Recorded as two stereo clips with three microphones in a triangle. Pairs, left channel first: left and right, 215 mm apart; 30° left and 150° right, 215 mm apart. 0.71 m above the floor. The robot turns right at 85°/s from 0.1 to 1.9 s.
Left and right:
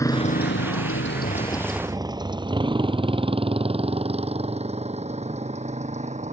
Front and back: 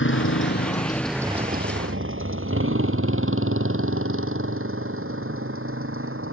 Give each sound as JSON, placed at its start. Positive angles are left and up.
{"t": 0.0, "sound": "a motorcycle", "azimuth_deg": 15}